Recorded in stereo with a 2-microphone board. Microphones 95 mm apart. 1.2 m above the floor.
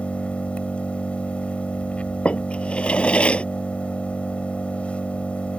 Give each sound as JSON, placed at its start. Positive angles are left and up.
{"t": 0.0, "sound": "an engine running", "side_deg": 15}
{"t": 2.2, "sound": "a drawer", "side_deg": 10}